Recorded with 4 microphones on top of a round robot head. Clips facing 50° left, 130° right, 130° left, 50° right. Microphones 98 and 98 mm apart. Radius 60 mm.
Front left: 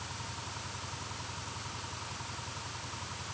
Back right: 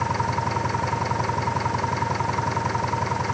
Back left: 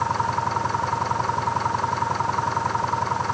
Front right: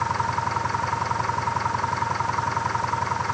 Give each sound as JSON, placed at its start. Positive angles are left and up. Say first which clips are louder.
{"t": 0.0, "sound": "an engine running", "louder": "back right 20 dB, back left 1 dB", "azimuth_deg": -150}